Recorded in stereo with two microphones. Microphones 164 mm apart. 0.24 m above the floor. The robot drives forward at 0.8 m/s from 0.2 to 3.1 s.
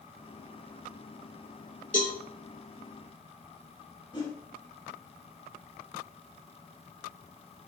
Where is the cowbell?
60° left (ahead or behind), 3.5 m; by 2.1 s 55° left (ahead or behind), 3.5 m.